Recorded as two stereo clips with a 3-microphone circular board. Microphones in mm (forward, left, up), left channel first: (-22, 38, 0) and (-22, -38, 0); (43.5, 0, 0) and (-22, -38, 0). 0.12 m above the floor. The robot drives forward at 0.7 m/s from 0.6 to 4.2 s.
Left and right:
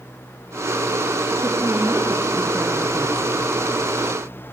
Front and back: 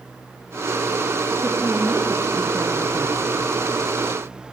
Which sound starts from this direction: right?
A woman speaking, at 1.4 s.